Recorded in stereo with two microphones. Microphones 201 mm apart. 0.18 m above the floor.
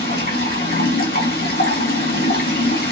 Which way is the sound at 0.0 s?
50° left (ahead or behind).